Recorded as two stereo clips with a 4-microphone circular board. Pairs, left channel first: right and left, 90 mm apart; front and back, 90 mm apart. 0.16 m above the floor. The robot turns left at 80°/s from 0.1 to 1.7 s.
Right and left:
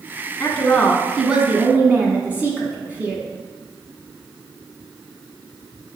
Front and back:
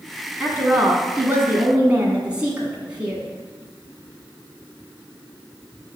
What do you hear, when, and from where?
0.4 s a woman speaking: 130° right, 1.1 m; by 3.3 s 125° left, 1.1 m